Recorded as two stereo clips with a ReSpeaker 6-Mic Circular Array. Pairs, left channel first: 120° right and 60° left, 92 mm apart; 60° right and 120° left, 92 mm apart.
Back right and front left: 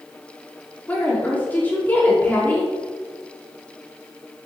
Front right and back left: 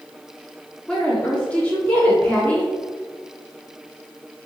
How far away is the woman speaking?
About 0.8 m.